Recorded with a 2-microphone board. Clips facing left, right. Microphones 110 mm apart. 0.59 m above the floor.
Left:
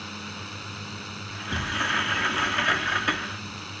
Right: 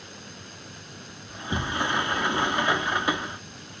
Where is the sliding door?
20° right (ahead or behind).